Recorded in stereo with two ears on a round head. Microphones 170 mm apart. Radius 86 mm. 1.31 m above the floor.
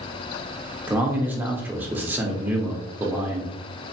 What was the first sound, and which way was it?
A man speaking, 10° right (ahead or behind).